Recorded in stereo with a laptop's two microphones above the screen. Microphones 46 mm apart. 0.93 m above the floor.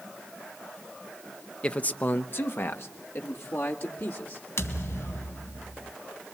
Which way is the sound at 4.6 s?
70° left (ahead or behind).